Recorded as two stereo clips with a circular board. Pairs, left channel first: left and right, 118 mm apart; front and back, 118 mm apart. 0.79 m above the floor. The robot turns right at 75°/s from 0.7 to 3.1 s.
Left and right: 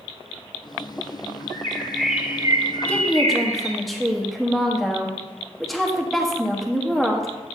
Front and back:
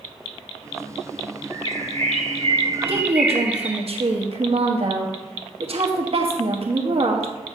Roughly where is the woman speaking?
Behind.